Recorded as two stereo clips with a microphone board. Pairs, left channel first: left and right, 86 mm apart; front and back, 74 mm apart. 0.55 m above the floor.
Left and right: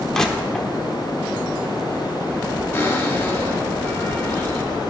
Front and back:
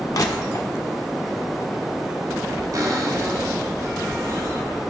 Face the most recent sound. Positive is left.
turn(degrees=155)